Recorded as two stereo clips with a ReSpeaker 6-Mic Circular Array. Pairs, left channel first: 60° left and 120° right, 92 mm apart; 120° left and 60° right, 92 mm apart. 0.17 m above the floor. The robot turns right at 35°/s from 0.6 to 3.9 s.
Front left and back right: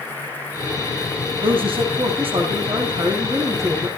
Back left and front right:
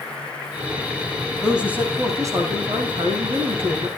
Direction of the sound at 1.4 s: 145° right.